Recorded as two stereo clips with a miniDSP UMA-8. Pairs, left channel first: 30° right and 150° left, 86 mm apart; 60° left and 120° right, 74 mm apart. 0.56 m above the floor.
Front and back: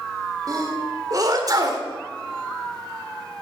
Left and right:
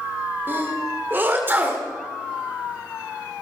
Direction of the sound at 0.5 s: 175° right.